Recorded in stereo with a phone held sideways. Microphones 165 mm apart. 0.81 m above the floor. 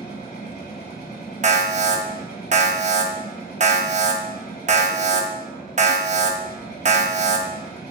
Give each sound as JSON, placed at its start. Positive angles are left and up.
{"t": 0.0, "sound": "a machine running", "side_deg": 70, "distance_m": 1.9}
{"t": 1.4, "sound": "an alarm", "side_deg": -45, "distance_m": 0.5}